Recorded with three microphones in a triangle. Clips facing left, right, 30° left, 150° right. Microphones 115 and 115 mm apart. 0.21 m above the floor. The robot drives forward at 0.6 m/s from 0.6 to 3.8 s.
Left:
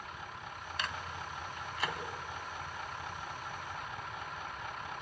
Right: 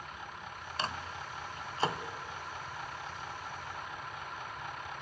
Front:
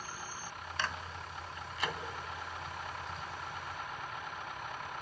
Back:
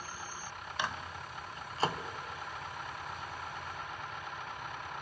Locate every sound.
0.8 s a microwave: 85° right, 1.5 m; by 2.0 s 130° right, 1.6 m